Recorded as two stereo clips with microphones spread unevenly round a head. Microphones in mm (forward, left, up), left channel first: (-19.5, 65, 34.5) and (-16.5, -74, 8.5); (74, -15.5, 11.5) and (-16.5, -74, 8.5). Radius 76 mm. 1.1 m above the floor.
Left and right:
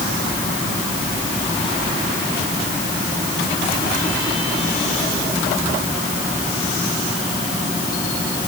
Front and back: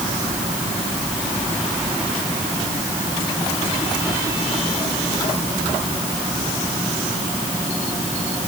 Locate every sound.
Only background noise.